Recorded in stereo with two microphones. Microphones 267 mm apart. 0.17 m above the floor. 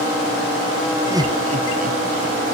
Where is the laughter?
10° right (ahead or behind), 1.2 m; by 2.3 s 40° right (ahead or behind), 2 m.